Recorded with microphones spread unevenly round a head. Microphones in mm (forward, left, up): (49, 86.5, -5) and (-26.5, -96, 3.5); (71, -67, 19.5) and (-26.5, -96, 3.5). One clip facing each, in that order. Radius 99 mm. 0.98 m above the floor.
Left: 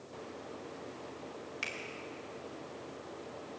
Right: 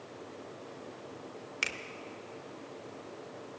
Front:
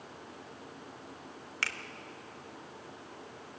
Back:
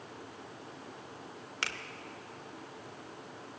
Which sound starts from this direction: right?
A finger snap, at 1.6 s.